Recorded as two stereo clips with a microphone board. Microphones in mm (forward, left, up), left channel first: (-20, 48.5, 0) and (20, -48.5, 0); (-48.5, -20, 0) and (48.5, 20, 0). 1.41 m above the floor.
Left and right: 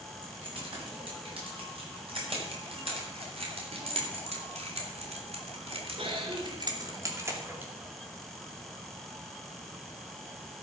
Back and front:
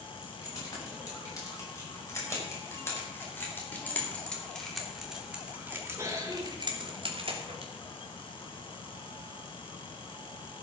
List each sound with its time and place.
0.2 s keys jangling: 105° right, 8 m; by 7.7 s 5° left, 3 m